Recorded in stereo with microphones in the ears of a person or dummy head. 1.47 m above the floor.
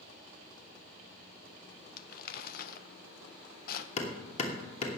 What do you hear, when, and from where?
2.0 s crumpling: 50° left (ahead or behind), 0.9 m
4.0 s hammering: 35° left (ahead or behind), 2.5 m